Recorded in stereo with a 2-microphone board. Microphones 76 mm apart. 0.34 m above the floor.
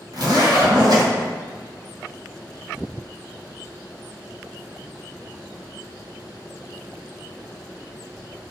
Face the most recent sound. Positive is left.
turn(degrees=-65)  # may be behind; listen again after turning